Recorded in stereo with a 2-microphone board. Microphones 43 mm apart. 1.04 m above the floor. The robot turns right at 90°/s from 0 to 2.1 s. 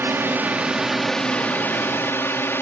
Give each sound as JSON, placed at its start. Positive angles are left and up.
{"t": 0.0, "sound": "a drone", "azimuth_deg": -90}